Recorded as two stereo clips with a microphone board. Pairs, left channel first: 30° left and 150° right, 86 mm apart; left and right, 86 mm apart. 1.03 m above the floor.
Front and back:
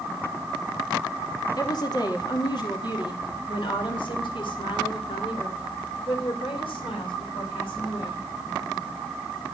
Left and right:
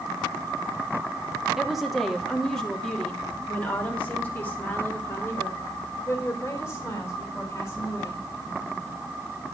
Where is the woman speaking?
5° right, 2.5 m; by 8.2 s 35° left, 5 m.